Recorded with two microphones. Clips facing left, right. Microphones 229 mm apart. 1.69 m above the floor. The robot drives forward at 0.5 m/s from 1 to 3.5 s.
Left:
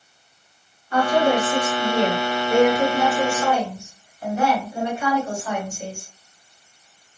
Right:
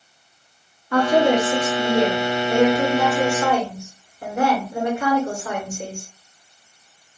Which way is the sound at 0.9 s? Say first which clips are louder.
Right 2 dB; 70° right (ahead or behind).